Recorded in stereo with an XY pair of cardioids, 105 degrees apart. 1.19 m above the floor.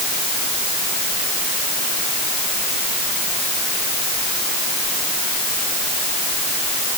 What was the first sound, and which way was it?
Only background noise.